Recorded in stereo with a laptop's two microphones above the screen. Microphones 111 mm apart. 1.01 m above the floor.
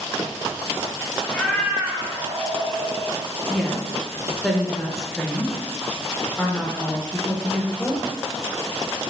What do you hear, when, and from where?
1.3 s a cat meowing: 15° left (ahead or behind), 0.6 m; by 3.1 s 70° right (ahead or behind), 1.1 m
3.5 s a woman speaking: 5° left (ahead or behind), 0.6 m